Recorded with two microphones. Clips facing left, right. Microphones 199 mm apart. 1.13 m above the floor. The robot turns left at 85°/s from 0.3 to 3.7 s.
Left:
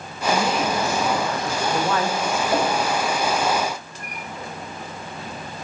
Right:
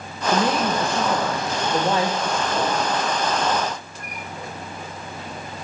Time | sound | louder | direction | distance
0.3 | a woman speaking | right 1 dB | 10° right | 0.8 m
2.5 | a whoosh | left 4 dB | 80° left | 2 m